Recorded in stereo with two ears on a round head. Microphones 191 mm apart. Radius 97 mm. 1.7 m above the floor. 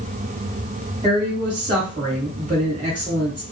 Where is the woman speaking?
25° right (ahead or behind), 1.2 m.